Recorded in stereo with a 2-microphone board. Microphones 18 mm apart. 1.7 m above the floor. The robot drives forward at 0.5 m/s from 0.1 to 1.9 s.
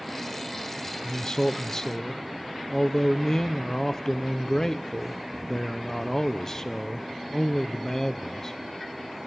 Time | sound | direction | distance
1.0 | a man speaking | 40° left (ahead or behind) | 0.5 m